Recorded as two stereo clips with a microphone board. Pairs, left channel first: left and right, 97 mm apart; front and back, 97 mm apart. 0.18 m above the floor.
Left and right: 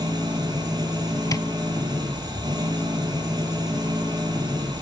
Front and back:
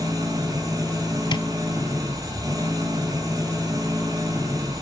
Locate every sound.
0.0 s an engine running: 130° right, 2.5 m
1.3 s tapping: 40° left, 0.6 m